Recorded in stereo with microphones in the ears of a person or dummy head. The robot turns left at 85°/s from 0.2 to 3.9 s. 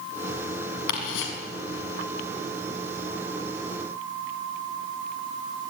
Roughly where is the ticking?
Left.